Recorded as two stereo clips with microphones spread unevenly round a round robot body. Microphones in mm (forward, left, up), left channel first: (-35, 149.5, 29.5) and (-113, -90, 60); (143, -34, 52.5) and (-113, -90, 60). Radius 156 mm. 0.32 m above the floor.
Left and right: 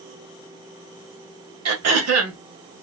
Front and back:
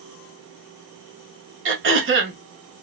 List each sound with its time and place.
1.6 s throat clearing: 125° right, 1.2 m